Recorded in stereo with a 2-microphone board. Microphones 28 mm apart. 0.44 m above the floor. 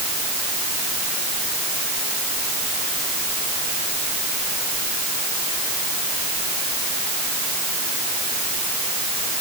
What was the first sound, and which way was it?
Only background noise.